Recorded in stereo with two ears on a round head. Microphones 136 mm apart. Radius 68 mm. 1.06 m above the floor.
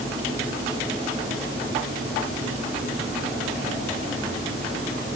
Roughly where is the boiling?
I don't hear boiling.